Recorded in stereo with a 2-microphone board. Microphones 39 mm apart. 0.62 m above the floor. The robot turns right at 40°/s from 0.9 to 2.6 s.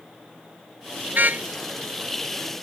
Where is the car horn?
55° right (ahead or behind); by 1.4 s 40° right (ahead or behind).